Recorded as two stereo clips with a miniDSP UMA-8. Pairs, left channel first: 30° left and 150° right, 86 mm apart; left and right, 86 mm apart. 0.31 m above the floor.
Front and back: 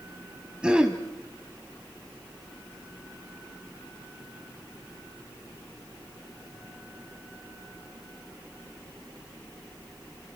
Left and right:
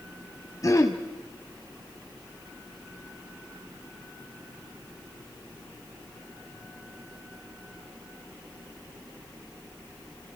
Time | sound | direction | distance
0.6 | throat clearing | 130° left | 1.7 m